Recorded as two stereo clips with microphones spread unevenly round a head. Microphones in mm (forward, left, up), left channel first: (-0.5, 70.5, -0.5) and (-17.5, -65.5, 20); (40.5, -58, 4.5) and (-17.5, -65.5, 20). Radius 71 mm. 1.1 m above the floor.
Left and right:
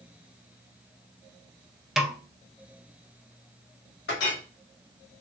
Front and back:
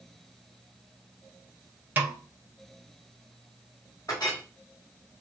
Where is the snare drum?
175° right, 0.6 m.